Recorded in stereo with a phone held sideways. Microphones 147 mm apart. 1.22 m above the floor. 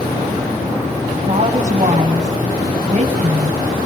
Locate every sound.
1.2 s a woman speaking: 50° right (ahead or behind), 6 m